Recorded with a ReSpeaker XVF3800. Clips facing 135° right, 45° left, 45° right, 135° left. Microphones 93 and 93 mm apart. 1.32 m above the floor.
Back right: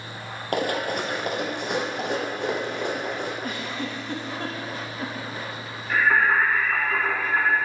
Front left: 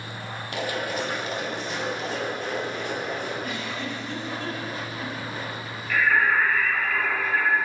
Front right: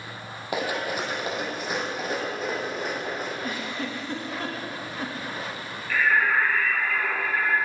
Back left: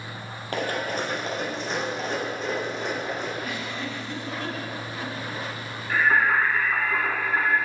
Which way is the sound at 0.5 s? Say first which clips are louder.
Back right 4 dB, even; 120° right.